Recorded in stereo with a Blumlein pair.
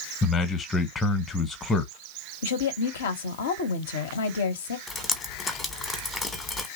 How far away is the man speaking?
About 1.0 m.